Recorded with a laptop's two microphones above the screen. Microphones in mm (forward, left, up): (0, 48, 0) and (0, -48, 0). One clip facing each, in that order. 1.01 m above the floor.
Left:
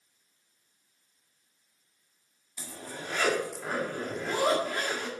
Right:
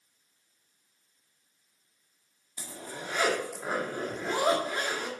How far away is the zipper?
About 1.8 m.